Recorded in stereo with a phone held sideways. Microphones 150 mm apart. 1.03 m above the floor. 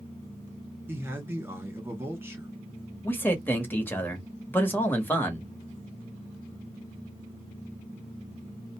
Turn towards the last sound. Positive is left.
turn(degrees=15)  # may be behind; listen again after turning